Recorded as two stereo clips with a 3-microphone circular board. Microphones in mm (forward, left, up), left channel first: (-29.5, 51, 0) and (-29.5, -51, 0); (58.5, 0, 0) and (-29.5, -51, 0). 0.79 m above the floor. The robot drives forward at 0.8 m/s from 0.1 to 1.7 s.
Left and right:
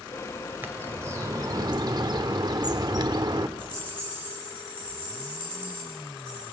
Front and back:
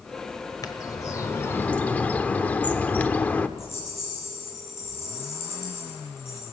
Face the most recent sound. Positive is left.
turn(degrees=45)